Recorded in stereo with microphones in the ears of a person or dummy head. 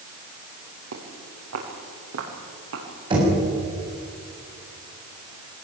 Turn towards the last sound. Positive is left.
turn(degrees=-30)  # may be behind; listen again after turning